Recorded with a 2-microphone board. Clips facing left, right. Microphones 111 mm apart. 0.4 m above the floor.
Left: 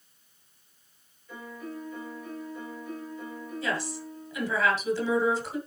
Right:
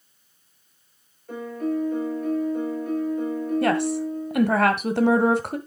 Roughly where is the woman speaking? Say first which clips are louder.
Right 9 dB; right.